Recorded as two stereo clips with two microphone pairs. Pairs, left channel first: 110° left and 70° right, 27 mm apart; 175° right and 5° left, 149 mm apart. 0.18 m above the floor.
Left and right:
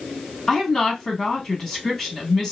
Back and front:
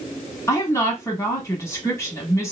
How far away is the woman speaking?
About 1.0 m.